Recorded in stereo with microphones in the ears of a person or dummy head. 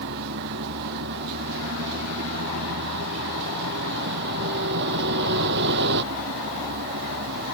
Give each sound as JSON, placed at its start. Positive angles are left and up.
{"t": 0.0, "sound": "a vehicle", "side_deg": -60}